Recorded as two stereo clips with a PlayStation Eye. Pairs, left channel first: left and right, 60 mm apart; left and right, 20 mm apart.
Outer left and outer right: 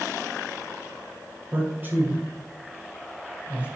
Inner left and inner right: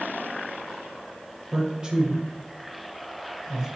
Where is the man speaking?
35° right (ahead or behind), 1.7 m; by 3.7 s 20° right (ahead or behind), 2.5 m.